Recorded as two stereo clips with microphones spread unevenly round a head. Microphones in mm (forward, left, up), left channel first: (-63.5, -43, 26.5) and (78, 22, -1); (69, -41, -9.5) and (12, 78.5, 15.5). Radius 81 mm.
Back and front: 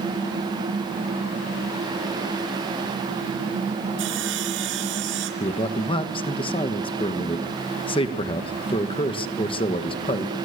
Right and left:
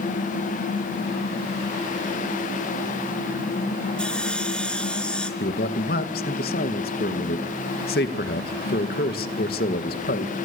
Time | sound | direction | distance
4.0 | sawing | 25° left | 3.5 m
5.4 | a man speaking | 100° right | 2 m